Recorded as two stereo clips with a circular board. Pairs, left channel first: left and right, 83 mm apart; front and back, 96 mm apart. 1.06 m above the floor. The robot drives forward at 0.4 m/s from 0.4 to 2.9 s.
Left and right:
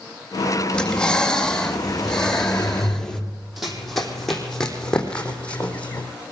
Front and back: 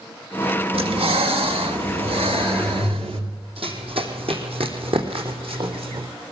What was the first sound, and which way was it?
Breathing, 170° left.